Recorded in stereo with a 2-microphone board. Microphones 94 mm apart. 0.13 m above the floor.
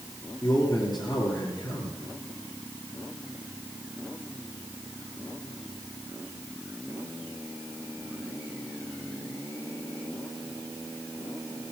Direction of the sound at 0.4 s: 50° left (ahead or behind).